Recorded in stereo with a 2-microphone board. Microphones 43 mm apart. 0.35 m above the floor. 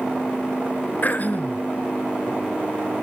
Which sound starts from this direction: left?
Throat clearing, at 1.0 s.